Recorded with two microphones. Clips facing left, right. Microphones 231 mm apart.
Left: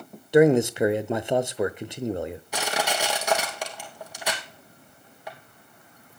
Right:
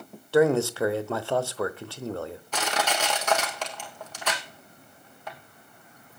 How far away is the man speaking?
About 0.9 m.